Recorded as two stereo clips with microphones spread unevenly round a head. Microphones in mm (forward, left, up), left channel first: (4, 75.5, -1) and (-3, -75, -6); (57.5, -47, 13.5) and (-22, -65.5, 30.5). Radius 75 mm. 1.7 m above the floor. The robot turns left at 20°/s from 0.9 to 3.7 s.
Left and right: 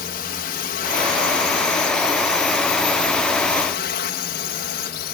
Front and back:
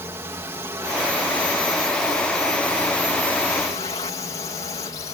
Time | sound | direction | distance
0.0 | a drone | 120° left | ?